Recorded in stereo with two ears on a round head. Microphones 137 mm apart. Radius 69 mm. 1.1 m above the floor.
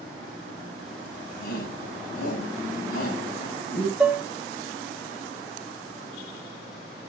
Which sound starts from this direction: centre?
Dishes clattering, at 4.0 s.